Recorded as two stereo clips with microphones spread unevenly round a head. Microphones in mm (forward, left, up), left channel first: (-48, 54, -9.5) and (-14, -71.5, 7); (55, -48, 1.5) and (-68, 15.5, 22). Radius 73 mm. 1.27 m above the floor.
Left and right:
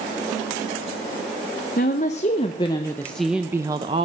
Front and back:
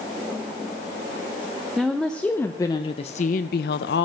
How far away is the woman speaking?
About 1.0 m.